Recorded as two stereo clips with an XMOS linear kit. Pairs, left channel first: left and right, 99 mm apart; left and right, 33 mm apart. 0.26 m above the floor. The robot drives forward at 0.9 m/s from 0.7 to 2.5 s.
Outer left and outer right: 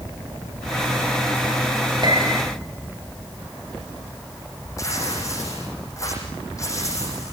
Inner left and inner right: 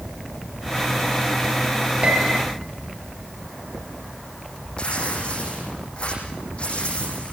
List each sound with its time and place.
2.0 s a piano: 45° right (ahead or behind), 7 m; by 2.5 s 40° right (ahead or behind), 7 m
4.8 s tearing paper: 35° left (ahead or behind), 10 m